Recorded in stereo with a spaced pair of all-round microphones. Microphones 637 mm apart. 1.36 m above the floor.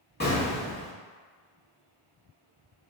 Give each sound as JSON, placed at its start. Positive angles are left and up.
{"t": 0.2, "sound": "an explosion", "side_deg": 15, "distance_m": 0.8}